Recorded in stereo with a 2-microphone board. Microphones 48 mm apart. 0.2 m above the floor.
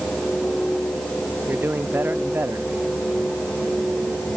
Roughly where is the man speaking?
Right.